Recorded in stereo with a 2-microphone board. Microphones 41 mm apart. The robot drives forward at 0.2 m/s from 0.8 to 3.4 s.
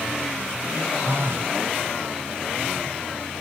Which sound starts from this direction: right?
A phone buzzing, at 1.0 s.